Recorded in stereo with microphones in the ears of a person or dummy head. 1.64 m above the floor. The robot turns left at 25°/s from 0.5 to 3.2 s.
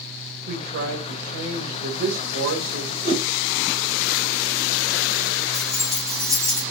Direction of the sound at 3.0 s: 40° right (ahead or behind).